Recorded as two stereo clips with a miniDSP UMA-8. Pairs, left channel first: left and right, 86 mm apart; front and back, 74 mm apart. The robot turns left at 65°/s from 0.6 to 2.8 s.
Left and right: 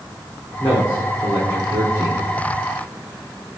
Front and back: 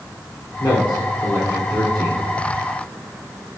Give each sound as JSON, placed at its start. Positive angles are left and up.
{"t": 0.6, "sound": "a man speaking", "azimuth_deg": 10, "distance_m": 3.0}